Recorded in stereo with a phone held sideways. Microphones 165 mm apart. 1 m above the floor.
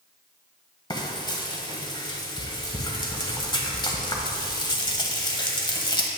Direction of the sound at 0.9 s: 25° left (ahead or behind).